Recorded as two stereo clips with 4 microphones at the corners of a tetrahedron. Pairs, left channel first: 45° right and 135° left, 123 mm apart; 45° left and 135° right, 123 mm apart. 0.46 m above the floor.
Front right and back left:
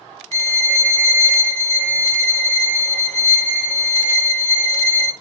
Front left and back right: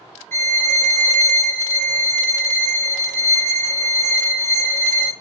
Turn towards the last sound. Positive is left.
turn(degrees=115)